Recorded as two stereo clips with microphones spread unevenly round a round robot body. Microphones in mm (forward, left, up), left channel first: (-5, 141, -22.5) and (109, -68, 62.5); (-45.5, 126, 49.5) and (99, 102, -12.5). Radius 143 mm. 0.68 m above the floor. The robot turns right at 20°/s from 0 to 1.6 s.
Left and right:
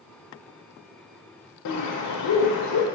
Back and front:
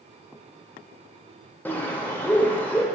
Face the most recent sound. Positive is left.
turn(degrees=105)